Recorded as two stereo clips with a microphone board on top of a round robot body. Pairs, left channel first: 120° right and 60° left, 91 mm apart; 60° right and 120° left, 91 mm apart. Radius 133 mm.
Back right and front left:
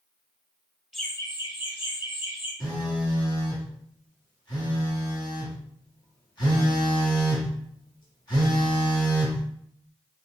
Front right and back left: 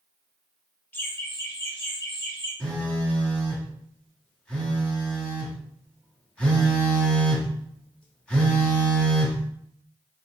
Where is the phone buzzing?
135° right, 1.6 m.